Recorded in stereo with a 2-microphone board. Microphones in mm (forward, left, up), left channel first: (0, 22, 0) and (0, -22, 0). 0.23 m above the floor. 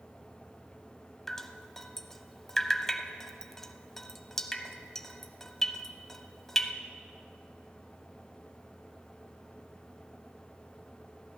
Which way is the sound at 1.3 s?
10° left (ahead or behind).